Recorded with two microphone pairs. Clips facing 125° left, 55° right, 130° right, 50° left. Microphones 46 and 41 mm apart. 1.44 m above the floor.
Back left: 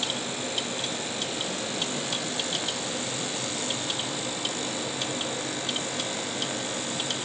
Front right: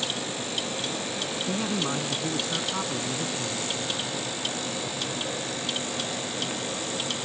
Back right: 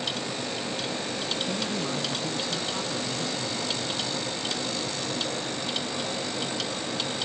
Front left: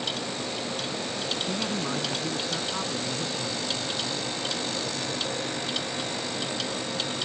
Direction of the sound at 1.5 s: 25° right.